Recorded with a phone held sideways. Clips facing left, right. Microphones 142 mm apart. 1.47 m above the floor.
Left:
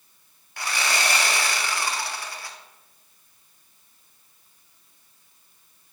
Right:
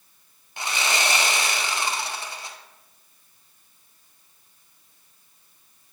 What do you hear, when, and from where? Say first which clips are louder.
0.6 s sawing: right 1 dB; 20° right (ahead or behind), 0.7 m